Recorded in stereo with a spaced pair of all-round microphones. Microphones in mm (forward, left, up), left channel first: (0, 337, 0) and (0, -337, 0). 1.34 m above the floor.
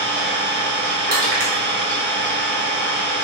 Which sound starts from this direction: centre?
An engine running, at 0.0 s.